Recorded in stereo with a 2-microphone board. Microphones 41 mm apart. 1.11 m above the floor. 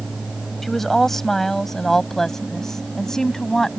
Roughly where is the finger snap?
No finger snap in this recording.